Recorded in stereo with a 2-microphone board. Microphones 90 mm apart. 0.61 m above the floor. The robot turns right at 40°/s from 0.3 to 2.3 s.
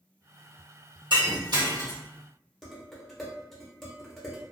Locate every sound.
1.1 s breaking glass: 70° right (ahead or behind), 1.2 m; by 2.0 s 40° right (ahead or behind), 1.2 m
2.6 s dishes clattering: 5° left (ahead or behind), 0.9 m